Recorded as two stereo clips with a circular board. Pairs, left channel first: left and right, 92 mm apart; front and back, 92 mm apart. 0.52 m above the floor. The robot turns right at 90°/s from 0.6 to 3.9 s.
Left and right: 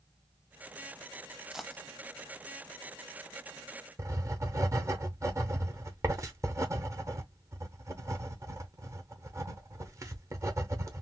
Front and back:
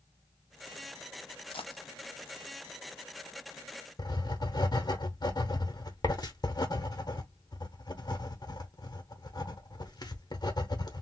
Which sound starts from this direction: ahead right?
Writing, at 4.0 s.